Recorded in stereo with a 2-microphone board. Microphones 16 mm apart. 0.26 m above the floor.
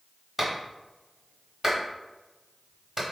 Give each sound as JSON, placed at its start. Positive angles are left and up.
{"t": 0.4, "sound": "a clap", "side_deg": -15, "distance_m": 1.1}